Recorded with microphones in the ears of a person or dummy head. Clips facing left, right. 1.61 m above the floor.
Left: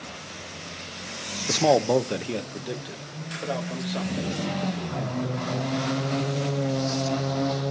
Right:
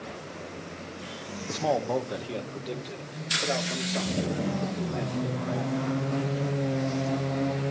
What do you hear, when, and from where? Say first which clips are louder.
1.5 s a man speaking: left 7 dB; 65° left (ahead or behind), 0.6 m; by 6.0 s centre (ahead or behind), 3.5 m